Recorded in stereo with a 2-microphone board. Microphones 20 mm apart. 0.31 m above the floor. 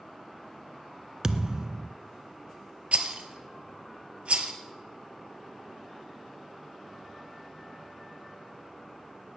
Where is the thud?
40° right (ahead or behind), 0.7 m.